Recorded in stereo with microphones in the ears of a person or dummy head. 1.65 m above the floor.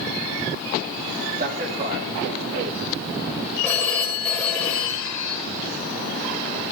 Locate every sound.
1.4 s a man speaking: 50° right (ahead or behind), 4 m; by 3.4 s 70° right (ahead or behind), 2.5 m
3.6 s a phone ringing: 10° left (ahead or behind), 5 m